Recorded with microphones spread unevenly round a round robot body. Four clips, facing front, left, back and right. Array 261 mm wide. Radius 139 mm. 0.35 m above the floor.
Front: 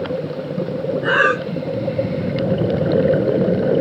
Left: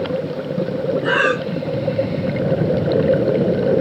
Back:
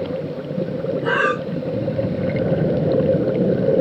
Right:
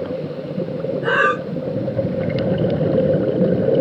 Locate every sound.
1.0 s breathing: 135° right, 1.2 m